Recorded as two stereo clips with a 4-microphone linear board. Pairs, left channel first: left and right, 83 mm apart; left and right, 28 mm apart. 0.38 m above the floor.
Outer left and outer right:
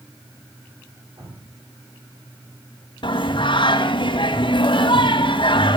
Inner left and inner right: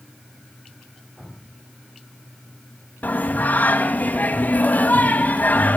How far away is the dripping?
About 8 m.